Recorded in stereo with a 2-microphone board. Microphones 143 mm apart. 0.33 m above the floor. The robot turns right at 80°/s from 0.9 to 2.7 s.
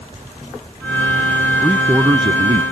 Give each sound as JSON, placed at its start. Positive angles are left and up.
{"t": 1.6, "sound": "a man speaking", "azimuth_deg": 170}